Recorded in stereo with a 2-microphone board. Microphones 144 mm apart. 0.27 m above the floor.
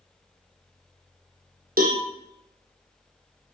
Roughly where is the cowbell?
Right.